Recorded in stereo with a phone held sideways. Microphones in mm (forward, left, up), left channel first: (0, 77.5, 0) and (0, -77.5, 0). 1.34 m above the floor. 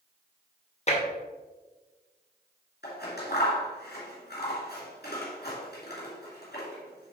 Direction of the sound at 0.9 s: 45° left (ahead or behind).